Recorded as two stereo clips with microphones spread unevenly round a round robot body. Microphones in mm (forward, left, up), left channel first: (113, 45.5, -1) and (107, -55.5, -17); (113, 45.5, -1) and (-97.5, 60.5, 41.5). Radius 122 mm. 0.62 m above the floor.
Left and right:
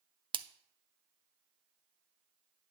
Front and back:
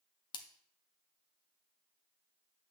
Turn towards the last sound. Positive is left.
turn(degrees=-70)